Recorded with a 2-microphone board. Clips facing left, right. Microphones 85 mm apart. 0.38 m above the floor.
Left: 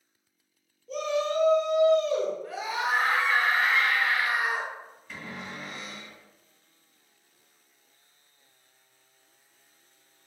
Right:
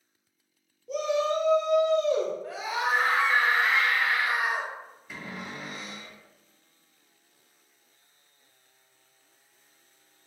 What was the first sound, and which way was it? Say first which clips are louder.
A shout: right 2 dB; 20° right (ahead or behind).